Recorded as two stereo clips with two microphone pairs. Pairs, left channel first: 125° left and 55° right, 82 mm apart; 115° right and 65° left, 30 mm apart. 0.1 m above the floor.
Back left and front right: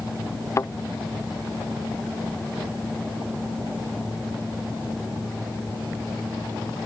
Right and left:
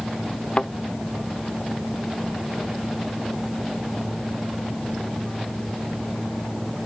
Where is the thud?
175° right.